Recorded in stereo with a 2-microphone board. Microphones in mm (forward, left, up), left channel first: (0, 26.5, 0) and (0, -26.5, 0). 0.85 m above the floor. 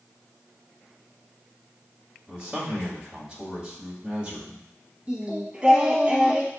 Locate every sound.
2.3 s a man speaking: 15° right (ahead or behind), 1.8 m
5.1 s singing: 30° right (ahead or behind), 1.0 m